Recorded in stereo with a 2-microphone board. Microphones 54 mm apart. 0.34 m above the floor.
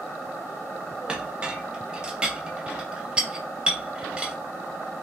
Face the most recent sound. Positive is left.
turn(degrees=-20)  # may be behind; listen again after turning